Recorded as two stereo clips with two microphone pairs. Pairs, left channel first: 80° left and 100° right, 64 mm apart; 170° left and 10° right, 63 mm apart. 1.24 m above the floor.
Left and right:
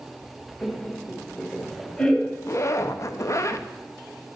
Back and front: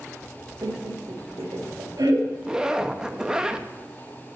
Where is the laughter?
5° left, 1.9 m.